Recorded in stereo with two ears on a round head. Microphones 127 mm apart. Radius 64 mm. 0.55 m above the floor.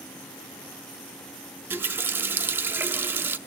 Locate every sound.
1.7 s a running tap: 15° right (ahead or behind), 0.6 m